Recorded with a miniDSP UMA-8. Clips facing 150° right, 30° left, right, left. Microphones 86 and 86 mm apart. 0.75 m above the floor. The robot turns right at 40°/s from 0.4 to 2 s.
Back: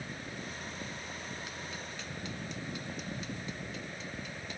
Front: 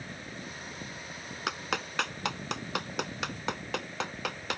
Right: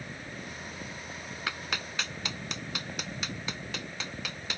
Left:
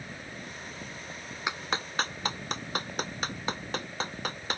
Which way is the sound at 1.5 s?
20° left.